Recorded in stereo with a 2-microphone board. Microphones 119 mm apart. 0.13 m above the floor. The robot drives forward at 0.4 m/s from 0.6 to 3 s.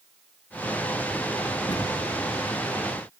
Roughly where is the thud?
Left.